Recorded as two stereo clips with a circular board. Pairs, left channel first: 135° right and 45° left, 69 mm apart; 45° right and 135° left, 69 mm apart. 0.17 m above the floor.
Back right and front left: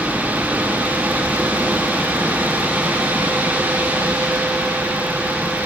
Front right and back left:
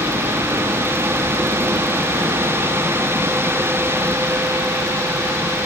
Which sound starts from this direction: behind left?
A helicopter, at 0.0 s.